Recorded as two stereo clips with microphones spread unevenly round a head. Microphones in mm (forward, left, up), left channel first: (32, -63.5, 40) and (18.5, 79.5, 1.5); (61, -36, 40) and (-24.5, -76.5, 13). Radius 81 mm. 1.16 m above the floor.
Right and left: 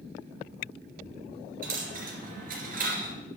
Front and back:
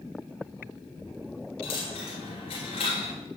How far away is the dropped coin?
About 2.5 m.